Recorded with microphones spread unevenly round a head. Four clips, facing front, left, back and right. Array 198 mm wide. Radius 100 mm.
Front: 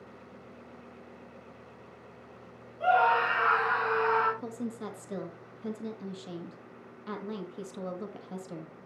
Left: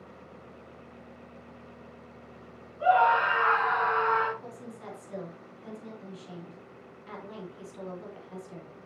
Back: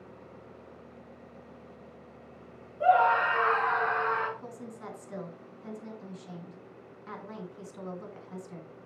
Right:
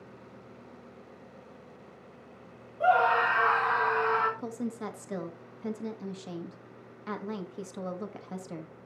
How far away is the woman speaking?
About 2 m.